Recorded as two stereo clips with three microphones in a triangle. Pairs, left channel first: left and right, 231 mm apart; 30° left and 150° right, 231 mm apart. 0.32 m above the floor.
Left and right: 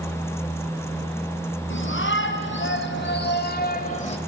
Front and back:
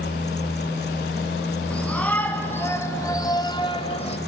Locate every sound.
1.7 s a shout: 115° left, 4 m; by 4.2 s 60° left, 1.7 m